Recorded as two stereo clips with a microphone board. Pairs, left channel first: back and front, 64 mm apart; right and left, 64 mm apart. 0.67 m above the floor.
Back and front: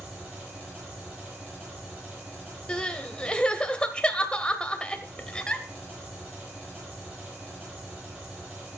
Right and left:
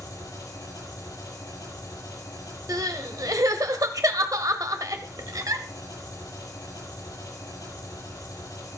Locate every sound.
0.0 s an engine running: 65° right, 9 m
2.7 s crying: 105° left, 0.9 m